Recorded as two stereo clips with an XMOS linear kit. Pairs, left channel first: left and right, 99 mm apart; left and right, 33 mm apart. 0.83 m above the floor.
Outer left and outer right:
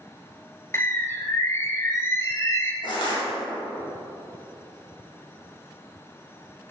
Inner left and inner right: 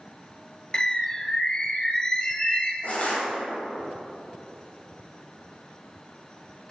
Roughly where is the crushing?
Left.